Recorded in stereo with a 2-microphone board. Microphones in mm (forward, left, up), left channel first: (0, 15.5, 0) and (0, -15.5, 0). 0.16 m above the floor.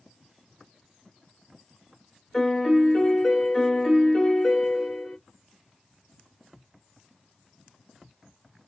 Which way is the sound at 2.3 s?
45° left (ahead or behind).